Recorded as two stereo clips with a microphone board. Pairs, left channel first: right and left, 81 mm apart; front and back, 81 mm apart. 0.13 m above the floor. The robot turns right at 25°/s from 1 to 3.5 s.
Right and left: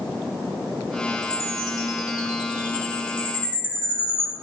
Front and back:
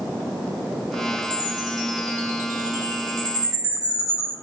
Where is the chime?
155° right, 1.1 m; by 4.3 s 95° right, 1.1 m.